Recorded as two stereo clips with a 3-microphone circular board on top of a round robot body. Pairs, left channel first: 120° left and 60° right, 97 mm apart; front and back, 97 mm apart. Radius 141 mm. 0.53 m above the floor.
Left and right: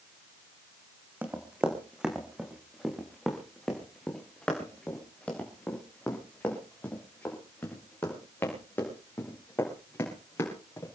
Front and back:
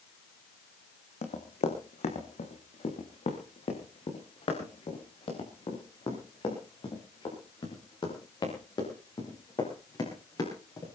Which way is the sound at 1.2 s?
15° left.